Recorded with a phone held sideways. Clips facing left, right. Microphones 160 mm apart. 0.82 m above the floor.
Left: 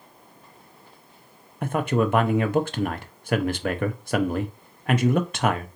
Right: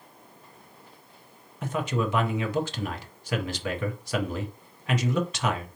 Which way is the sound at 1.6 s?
55° left (ahead or behind).